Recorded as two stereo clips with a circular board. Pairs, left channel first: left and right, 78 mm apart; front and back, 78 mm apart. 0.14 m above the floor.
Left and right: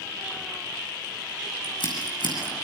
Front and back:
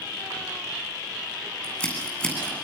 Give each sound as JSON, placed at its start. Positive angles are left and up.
{"t": 1.6, "sound": "scissors", "azimuth_deg": 75, "distance_m": 9.0}